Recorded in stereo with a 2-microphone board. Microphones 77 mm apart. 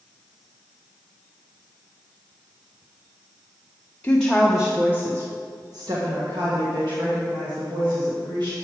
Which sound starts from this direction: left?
A woman speaking, at 4.0 s.